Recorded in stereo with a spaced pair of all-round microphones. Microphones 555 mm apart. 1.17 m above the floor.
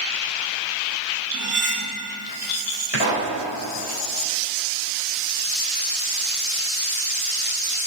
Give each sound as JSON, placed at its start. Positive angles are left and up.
{"t": 1.3, "sound": "cutlery clinking", "side_deg": -65, "distance_m": 1.3}
{"t": 2.9, "sound": "a pop", "side_deg": 50, "distance_m": 3.5}